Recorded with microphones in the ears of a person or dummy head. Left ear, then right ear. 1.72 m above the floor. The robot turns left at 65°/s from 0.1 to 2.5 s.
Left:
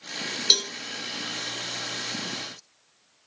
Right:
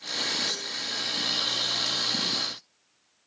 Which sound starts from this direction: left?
A cowbell, at 0.5 s.